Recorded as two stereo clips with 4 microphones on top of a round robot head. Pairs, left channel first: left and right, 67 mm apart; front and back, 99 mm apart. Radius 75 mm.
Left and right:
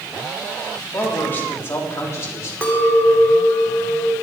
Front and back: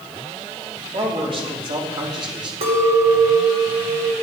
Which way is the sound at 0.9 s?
150° left.